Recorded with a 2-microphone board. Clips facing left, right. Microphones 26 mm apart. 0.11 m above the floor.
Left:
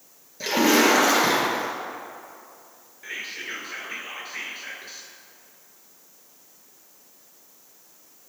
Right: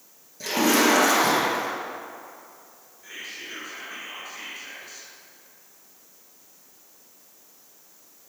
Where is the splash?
25° left (ahead or behind), 2 m.